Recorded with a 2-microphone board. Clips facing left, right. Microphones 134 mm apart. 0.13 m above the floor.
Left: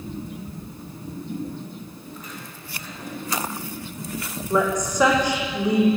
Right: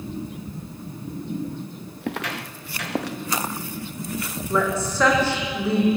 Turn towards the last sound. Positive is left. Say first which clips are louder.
# left 2 dB
turn(degrees=15)  # may be behind; listen again after turning